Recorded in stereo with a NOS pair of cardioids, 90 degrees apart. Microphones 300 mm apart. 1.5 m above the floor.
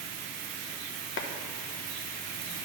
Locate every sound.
1.2 s a clap: 40° left, 1.0 m